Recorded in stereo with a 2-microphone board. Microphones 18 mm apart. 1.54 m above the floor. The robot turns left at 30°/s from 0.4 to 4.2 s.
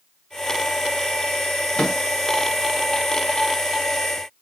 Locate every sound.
1.8 s a microwave: 60° left (ahead or behind), 1.3 m; by 2.0 s 55° left (ahead or behind), 1.3 m